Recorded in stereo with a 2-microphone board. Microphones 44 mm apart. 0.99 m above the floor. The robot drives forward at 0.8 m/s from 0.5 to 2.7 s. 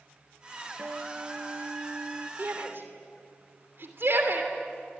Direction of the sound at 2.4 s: 55° right (ahead or behind).